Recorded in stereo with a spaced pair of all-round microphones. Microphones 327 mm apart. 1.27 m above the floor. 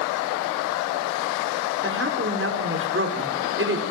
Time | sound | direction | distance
1.8 | a woman speaking | 40° right (ahead or behind) | 5 m